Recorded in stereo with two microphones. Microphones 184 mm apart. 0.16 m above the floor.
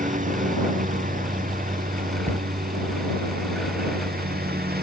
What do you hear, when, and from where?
0.0 s a lawn mower: 45° right (ahead or behind); by 4.8 s 55° right (ahead or behind)
2.3 s a cupboard door: 40° right (ahead or behind)